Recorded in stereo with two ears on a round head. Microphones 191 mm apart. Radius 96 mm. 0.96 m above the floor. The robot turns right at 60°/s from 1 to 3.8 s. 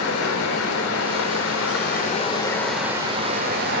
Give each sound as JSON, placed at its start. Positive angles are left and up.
{"t": 0.0, "sound": "running water", "azimuth_deg": 75, "distance_m": 3.5}